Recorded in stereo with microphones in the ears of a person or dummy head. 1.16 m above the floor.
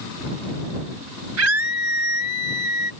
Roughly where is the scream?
Right.